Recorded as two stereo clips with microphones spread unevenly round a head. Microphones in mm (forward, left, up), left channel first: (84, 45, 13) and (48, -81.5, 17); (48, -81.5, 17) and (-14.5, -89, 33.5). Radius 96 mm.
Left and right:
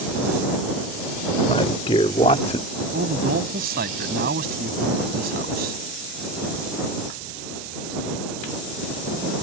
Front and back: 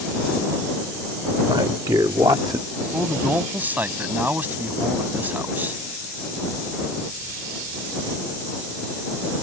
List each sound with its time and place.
1.5 s a man speaking: 140° left; by 2.7 s 130° left
2.9 s a man speaking: 115° right